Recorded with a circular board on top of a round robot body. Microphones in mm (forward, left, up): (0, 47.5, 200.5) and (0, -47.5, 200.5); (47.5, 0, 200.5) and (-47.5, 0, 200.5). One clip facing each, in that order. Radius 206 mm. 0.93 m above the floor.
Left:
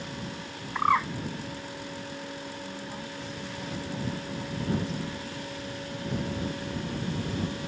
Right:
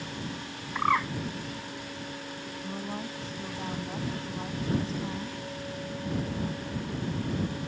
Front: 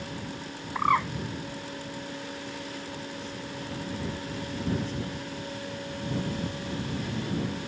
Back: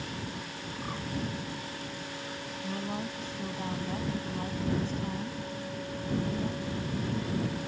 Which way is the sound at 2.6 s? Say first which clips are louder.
Right 2 dB, back 3 dB; 145° right.